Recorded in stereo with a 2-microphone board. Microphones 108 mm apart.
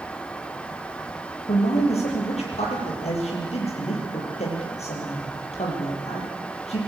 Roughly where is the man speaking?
Left.